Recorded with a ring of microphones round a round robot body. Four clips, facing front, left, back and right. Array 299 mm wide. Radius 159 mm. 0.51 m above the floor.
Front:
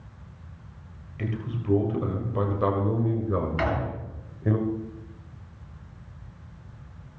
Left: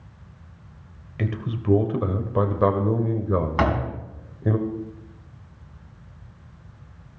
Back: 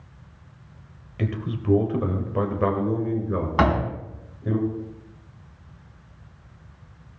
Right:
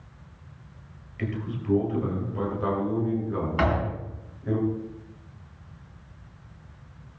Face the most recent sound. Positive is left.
turn(degrees=145)